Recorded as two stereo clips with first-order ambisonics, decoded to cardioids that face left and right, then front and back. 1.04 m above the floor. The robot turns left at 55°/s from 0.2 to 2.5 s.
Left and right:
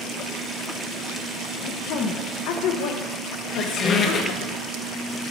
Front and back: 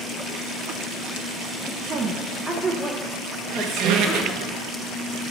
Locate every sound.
1.9 s a woman speaking: 130° left, 0.6 m; by 4.5 s 95° left, 0.6 m
3.5 s a squeak: 150° left, 0.6 m